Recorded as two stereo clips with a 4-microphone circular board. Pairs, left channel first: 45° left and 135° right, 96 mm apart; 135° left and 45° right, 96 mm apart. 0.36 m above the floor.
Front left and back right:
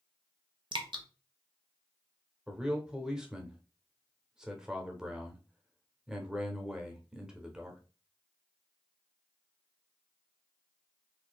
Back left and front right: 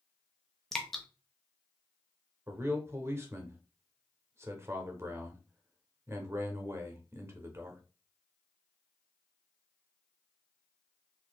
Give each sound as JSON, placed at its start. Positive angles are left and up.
{"t": 0.7, "sound": "dripping", "azimuth_deg": -140, "distance_m": 0.7}
{"t": 2.5, "sound": "a man speaking", "azimuth_deg": -60, "distance_m": 0.9}